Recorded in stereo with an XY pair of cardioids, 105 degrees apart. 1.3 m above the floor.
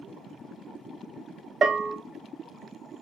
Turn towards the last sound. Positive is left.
turn(degrees=-50)